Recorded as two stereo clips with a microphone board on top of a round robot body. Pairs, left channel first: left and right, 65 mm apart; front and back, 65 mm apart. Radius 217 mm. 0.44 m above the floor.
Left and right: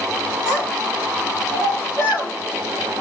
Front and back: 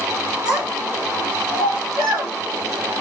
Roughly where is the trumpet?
No trumpet in this recording.